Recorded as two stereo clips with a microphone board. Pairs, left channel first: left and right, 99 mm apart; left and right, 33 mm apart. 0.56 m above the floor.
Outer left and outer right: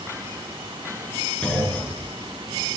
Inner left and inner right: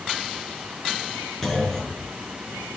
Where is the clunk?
10° left (ahead or behind), 5 m.